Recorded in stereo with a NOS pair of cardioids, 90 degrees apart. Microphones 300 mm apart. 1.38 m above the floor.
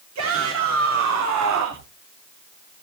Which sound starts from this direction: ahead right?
A shout, at 0.1 s.